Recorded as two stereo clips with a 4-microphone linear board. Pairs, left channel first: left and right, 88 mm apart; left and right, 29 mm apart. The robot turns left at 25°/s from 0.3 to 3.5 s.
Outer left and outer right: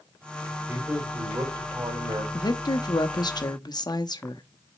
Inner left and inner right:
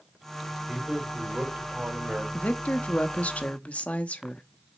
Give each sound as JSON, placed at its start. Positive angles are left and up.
{"t": 0.7, "sound": "a man speaking", "azimuth_deg": -30, "distance_m": 3.5}
{"t": 2.3, "sound": "a woman speaking", "side_deg": 50, "distance_m": 0.8}